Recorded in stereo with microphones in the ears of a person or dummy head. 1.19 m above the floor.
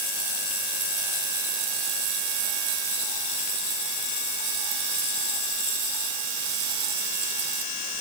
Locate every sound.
Only background noise.